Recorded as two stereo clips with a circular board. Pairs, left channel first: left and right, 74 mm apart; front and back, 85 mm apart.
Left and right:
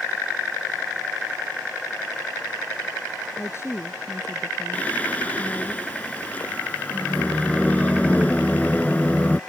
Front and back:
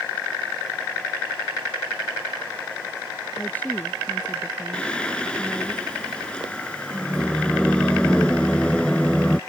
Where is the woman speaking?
60° left.